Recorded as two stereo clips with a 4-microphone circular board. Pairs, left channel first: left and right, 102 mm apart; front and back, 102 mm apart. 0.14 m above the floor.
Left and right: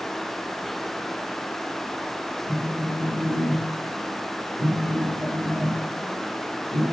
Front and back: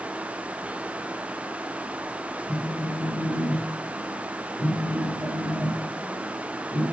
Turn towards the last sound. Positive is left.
turn(degrees=-60)